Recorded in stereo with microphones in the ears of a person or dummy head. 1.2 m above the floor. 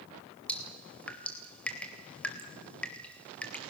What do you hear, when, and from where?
0.5 s dripping: 5° left (ahead or behind), 2.5 m